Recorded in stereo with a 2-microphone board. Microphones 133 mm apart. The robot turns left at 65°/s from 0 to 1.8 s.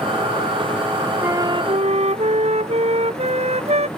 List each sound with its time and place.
1.2 s a flute: 20° right; by 3.9 s 55° right